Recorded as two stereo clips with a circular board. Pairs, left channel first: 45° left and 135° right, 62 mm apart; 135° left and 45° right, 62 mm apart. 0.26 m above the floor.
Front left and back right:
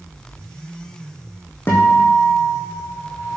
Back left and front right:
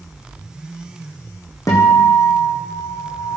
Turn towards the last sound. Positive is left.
turn(degrees=100)